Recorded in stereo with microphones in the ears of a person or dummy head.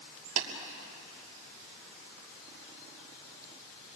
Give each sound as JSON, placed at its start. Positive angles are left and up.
{"t": 0.4, "sound": "tapping", "side_deg": -40, "distance_m": 3.0}